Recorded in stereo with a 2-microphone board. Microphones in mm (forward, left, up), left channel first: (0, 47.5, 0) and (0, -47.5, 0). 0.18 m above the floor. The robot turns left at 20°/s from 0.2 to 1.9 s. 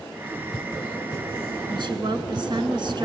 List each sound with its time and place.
1.7 s a woman speaking: 55° right (ahead or behind), 1.7 m